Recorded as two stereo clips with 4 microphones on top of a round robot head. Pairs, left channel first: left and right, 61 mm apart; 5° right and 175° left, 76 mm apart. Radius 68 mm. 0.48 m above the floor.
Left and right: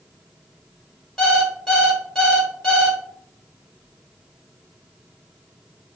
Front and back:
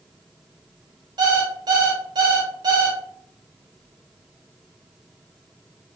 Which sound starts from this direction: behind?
An alarm clock, at 1.2 s.